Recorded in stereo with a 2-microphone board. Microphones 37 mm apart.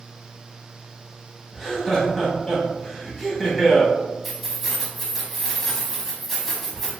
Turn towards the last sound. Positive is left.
turn(degrees=5)  # may be behind; listen again after turning